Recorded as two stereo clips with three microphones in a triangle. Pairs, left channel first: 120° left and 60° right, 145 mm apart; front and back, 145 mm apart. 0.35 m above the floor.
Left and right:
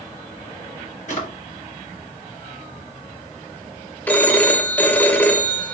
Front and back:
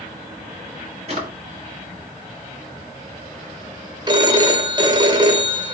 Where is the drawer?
145° left, 1.3 m.